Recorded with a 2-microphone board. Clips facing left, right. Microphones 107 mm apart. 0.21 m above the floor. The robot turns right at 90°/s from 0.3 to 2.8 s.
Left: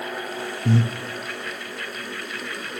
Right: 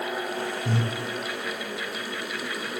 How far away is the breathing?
About 0.7 m.